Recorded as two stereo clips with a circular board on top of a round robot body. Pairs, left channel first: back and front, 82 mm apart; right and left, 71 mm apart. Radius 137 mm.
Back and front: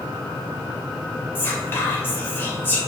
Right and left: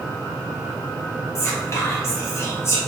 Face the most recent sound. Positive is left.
turn(degrees=-125)